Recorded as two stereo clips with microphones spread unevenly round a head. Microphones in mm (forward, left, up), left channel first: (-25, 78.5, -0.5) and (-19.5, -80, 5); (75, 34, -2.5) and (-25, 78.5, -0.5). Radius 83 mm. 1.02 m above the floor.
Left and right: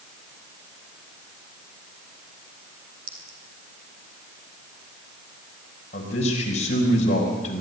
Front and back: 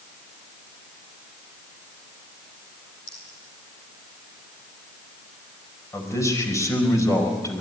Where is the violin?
No violin in this recording.